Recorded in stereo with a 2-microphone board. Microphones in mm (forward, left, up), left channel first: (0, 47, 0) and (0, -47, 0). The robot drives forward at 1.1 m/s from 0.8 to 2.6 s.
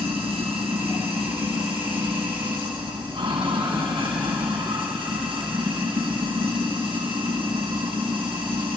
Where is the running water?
85° right, 4 m; by 8.8 s 65° right (ahead or behind), 4.5 m.